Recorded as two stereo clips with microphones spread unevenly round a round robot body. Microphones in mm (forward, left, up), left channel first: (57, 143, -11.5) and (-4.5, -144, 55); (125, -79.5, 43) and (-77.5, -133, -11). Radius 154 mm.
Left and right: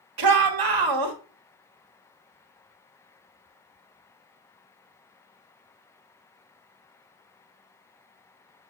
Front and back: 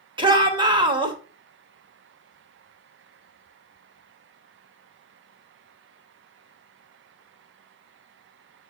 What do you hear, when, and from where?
0.2 s a shout: 105° right, 2.5 m